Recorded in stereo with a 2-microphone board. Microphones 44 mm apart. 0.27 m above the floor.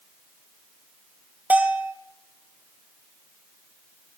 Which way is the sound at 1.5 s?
35° right (ahead or behind).